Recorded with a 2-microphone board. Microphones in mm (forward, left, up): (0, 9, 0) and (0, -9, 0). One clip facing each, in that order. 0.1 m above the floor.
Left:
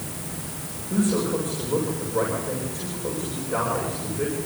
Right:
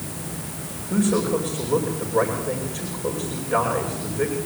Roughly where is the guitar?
No guitar in this recording.